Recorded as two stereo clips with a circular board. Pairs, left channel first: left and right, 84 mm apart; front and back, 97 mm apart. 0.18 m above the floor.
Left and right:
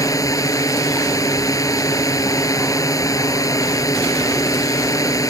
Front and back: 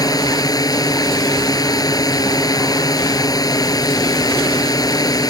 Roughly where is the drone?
Ahead left.